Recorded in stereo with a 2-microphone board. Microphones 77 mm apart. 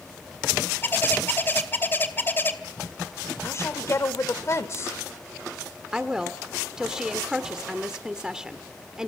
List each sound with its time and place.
0.8 s a bird: 30° left (ahead or behind), 2.5 m
3.4 s a woman speaking: 40° left (ahead or behind), 1.3 m
5.9 s a woman speaking: 10° right (ahead or behind), 1.4 m